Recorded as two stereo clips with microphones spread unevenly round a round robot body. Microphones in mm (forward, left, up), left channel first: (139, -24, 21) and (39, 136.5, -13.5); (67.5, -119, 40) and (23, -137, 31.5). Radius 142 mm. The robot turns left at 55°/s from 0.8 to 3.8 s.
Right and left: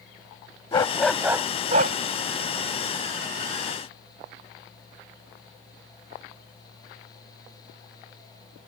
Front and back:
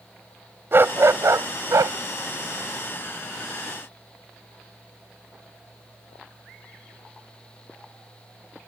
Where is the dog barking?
120° right; by 2.0 s 175° left.